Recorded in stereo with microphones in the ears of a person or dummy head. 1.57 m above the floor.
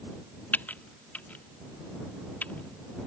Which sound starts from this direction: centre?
Typing on a keyboard, at 0.5 s.